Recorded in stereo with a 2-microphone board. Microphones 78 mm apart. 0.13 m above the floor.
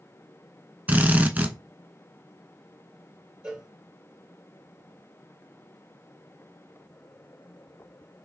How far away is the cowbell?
About 1.9 m.